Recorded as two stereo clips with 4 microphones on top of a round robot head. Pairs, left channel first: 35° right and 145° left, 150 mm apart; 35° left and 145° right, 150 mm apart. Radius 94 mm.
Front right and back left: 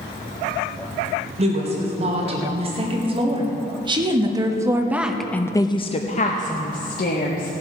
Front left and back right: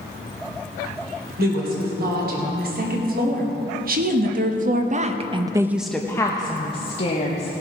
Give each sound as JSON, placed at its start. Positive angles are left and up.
{"t": 1.4, "sound": "a woman speaking", "azimuth_deg": -165, "distance_m": 3.5}